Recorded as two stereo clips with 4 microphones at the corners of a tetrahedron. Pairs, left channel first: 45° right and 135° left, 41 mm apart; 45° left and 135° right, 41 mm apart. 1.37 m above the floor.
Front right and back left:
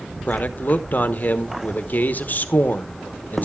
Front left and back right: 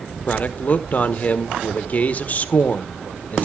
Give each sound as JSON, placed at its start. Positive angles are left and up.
{"t": 0.3, "sound": "a man speaking", "azimuth_deg": -5, "distance_m": 1.1}